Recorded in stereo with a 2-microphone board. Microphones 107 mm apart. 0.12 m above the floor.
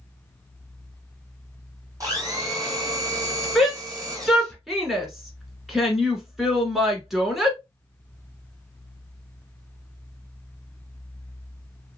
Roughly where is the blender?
Right.